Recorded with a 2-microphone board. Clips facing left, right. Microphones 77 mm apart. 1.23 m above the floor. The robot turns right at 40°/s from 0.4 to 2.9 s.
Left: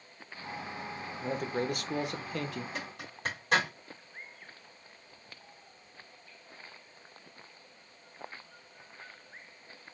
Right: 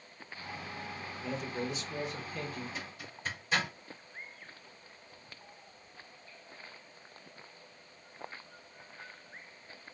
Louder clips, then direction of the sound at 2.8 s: Left 3 dB; 55° left (ahead or behind).